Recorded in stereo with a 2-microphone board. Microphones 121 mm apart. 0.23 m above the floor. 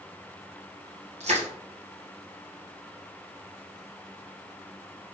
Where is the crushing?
65° right (ahead or behind), 1.8 m.